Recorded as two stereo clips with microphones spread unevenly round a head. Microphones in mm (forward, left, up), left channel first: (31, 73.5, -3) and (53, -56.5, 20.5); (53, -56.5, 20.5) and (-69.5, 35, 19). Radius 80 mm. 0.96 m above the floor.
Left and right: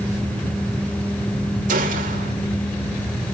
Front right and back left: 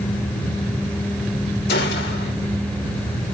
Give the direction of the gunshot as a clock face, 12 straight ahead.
2 o'clock.